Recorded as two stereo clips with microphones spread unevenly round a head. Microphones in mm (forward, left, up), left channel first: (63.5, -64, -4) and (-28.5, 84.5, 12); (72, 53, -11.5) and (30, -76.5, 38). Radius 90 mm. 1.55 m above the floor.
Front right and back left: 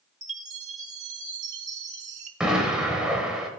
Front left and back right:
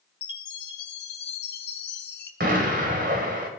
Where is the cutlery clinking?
No cutlery clinking in this recording.